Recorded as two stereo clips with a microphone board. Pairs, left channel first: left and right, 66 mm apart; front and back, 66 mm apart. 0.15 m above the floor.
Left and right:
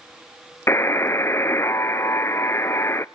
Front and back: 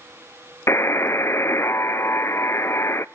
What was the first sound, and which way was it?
A buzzer, 40° left.